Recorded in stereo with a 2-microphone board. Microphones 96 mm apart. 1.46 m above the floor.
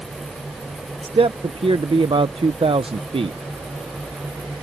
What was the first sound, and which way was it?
A man speaking, 65° right (ahead or behind).